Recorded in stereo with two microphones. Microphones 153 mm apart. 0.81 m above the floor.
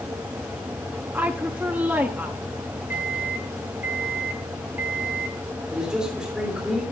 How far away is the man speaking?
About 3 m.